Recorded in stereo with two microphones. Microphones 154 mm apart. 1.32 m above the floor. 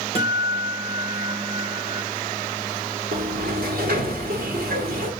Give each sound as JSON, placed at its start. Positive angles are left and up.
{"t": 0.1, "sound": "a guitar", "side_deg": -40, "distance_m": 1.9}
{"t": 3.1, "sound": "a sliding door", "side_deg": -75, "distance_m": 2.0}